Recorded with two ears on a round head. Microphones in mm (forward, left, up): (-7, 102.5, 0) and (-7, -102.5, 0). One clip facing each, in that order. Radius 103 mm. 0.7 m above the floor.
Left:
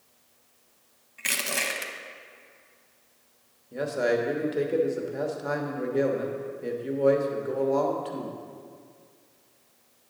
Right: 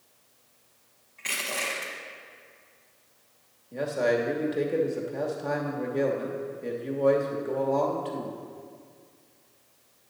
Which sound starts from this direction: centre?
A man speaking, at 3.7 s.